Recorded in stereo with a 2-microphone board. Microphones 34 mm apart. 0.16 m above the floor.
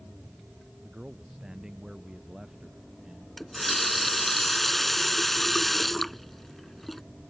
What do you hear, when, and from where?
0.8 s a man speaking: 20° right (ahead or behind); by 3.3 s 15° right (ahead or behind)
3.4 s a running tap: 5° left (ahead or behind)